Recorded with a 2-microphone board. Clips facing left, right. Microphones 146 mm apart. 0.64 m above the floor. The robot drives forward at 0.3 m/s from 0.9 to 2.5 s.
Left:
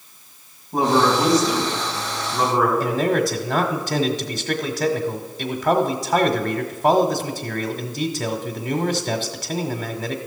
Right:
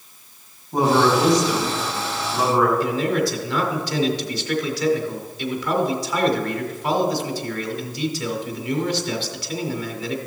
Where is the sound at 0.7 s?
Centre (ahead or behind), 5 m.